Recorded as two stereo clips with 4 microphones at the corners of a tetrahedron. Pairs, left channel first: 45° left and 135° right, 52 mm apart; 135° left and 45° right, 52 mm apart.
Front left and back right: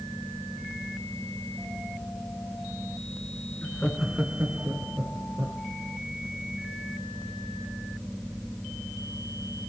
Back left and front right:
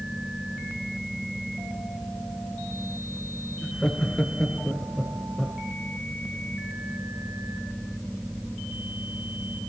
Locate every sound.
3.6 s laughter: 75° left, 1.3 m; by 5.6 s 135° right, 2.5 m